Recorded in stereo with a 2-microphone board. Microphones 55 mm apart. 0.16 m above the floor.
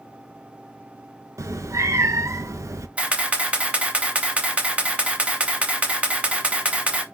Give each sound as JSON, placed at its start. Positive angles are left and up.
{"t": 1.4, "sound": "a cat meowing", "side_deg": -65, "distance_m": 0.5}
{"t": 3.0, "sound": "a camera shutter", "side_deg": -20, "distance_m": 0.8}